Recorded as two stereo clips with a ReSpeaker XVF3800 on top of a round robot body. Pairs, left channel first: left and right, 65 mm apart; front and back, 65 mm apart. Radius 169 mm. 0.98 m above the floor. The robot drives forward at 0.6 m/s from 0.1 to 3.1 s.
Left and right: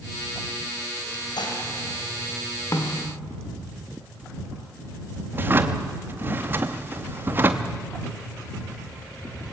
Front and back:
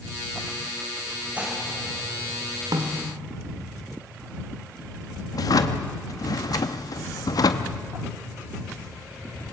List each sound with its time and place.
1.4 s dishes clattering: 105° left, 4 m; by 1.6 s 110° left, 4 m
2.7 s a snare drum: 145° left, 1.6 m; by 3.1 s 150° left, 1.8 m
5.3 s a drawer: 30° right, 0.6 m